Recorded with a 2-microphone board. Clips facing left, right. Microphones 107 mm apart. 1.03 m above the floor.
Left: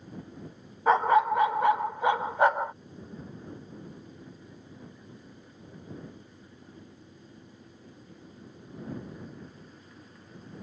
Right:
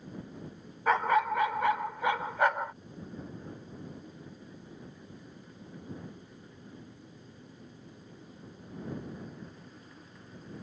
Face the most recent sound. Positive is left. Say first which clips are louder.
# left 5 dB
turn(degrees=25)  # may be behind; listen again after turning